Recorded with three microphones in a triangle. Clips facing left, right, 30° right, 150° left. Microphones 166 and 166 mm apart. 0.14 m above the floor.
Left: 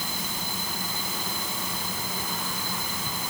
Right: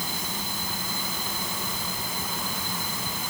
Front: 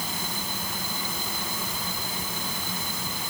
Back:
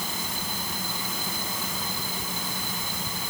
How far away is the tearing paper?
No tearing paper in this recording.